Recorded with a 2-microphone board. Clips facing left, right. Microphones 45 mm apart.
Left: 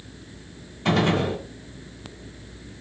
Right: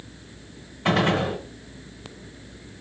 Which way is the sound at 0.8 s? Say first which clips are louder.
Even; 15° right (ahead or behind).